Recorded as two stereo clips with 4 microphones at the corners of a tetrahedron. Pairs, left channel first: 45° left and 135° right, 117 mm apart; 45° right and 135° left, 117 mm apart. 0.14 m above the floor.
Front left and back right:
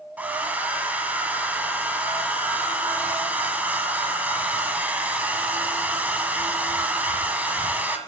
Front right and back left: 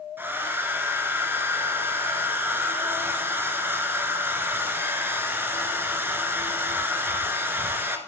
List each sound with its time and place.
0.2 s a hair dryer: 170° left, 1.8 m